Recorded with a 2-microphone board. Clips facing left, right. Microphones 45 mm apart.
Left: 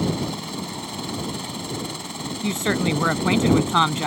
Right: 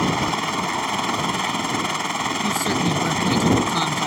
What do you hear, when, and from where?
0.0 s a helicopter: 60° right (ahead or behind)
2.4 s a woman speaking: 40° left (ahead or behind)